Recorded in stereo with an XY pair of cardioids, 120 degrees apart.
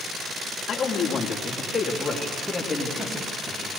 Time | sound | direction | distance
0.7 | a man speaking | 45° left | 3 m